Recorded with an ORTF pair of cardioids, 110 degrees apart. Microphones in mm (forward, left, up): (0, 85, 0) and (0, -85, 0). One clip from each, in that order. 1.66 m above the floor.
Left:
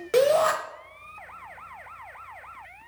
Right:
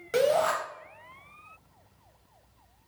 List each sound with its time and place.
0.1 s a shout: 20° left, 1.1 m